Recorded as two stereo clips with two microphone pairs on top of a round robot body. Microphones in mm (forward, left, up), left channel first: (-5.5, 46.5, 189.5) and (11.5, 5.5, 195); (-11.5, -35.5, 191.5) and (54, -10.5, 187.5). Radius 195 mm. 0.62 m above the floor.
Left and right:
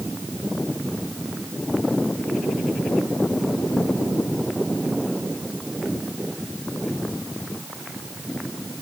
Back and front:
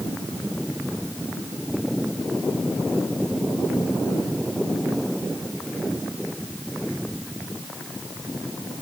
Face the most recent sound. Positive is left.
No sound to turn to.